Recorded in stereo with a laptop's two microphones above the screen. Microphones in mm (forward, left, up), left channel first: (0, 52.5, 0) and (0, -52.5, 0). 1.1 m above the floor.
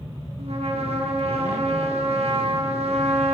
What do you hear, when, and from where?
0.4 s a trumpet: 80° right, 0.8 m